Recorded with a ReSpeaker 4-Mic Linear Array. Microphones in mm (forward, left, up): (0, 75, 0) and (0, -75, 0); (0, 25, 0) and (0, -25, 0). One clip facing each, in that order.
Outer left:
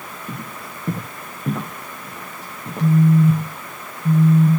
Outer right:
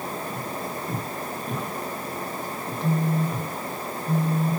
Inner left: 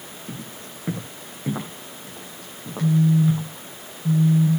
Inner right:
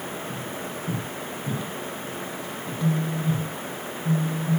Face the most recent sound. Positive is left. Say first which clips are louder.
# outer left 10 dB, inner left 7 dB
turn(degrees=65)  # may be behind; listen again after turning